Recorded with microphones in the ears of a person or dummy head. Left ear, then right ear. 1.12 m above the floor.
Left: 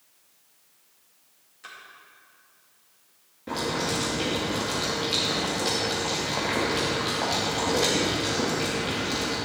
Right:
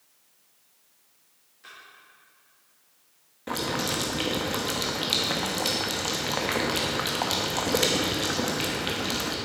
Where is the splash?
25° left (ahead or behind), 2.5 m.